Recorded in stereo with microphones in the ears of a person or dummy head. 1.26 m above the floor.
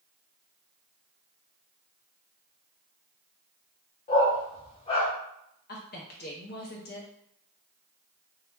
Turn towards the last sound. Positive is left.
turn(degrees=50)  # may be behind; listen again after turning